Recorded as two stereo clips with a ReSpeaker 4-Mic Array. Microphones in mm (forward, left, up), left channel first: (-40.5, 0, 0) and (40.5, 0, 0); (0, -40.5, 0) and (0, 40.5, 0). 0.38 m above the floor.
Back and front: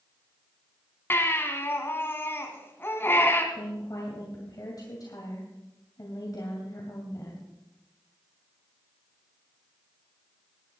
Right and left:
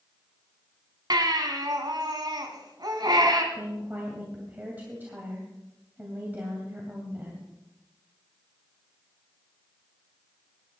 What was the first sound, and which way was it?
A baby crying, 120° left.